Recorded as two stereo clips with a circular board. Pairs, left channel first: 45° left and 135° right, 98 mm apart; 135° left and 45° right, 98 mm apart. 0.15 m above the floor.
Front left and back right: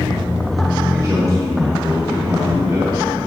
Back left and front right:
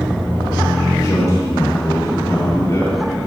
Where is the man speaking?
Straight behind, 3 m.